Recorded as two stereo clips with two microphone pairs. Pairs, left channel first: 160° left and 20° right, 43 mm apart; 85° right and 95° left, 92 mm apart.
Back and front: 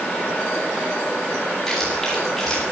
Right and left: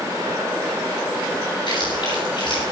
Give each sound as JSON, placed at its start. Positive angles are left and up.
{"t": 1.7, "sound": "chewing", "azimuth_deg": -120, "distance_m": 9.5}